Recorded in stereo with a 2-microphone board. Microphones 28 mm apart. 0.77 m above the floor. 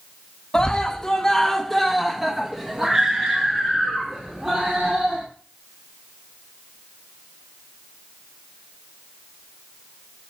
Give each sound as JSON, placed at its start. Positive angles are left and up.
{"t": 0.5, "sound": "a scream", "side_deg": 20, "distance_m": 1.2}